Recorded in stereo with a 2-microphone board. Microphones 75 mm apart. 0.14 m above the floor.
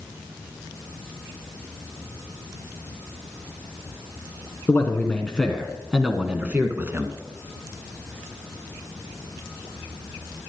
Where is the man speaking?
25° left (ahead or behind), 1.4 m; by 7.2 s 35° right (ahead or behind), 1.4 m.